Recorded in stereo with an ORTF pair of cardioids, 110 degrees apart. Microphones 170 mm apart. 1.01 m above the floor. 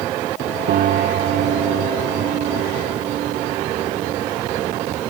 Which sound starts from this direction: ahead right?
A piano, at 0.7 s.